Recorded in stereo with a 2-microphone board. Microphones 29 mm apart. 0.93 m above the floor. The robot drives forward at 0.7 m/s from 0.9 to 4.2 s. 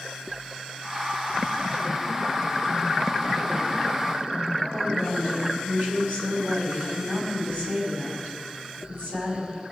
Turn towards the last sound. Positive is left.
turn(degrees=-85)